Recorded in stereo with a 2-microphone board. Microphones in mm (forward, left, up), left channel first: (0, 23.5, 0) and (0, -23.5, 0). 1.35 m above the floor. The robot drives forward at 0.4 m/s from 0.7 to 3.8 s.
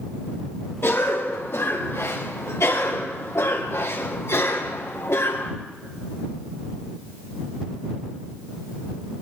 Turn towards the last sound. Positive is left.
turn(degrees=75)  # may be behind; listen again after turning